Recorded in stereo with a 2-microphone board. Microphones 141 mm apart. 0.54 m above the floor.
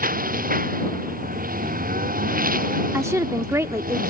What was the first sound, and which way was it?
A lawn mower, 85° right.